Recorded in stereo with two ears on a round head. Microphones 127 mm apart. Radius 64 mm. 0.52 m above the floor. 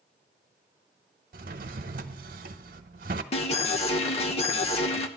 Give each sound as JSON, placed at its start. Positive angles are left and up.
{"t": 1.3, "sound": "a drawer", "side_deg": -65, "distance_m": 0.7}
{"t": 3.3, "sound": "an alarm", "side_deg": 45, "distance_m": 1.0}